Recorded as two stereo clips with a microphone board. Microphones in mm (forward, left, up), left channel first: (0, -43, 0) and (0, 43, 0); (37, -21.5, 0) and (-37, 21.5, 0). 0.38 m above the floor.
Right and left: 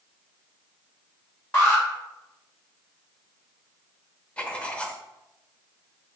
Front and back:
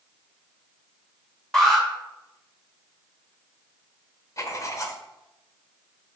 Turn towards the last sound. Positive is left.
turn(degrees=-20)